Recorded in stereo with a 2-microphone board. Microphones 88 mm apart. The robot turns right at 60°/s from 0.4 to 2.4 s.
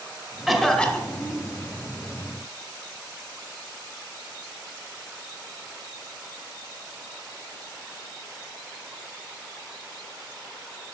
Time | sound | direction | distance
0.5 | a cough | 5° right | 1.6 m